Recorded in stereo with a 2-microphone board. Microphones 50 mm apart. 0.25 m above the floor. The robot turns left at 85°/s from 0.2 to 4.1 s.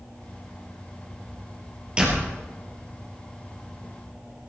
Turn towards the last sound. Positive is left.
turn(degrees=20)